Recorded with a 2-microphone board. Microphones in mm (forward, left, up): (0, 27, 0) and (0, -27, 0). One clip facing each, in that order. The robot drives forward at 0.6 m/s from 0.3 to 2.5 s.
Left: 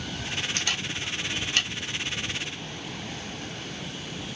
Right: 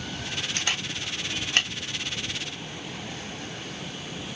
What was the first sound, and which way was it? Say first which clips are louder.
A camera shutter: even; 30° right (ahead or behind).